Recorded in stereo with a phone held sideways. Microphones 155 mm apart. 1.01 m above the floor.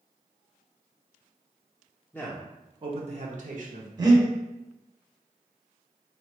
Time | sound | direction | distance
2.1 | a man speaking | 10° left (ahead or behind) | 0.5 m
4.0 | breathing | 25° right (ahead or behind) | 0.8 m